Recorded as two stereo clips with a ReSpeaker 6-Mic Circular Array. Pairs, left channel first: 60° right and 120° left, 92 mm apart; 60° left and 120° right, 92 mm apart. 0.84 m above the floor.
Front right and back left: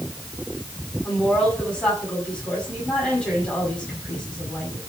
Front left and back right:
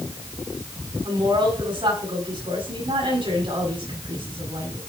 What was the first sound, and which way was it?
A woman speaking, 140° right.